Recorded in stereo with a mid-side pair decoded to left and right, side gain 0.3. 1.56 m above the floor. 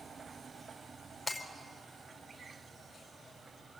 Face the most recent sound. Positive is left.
turn(degrees=45)